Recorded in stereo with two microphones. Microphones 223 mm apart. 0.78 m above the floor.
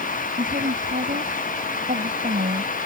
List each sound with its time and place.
0.4 s a woman speaking: 40° right (ahead or behind)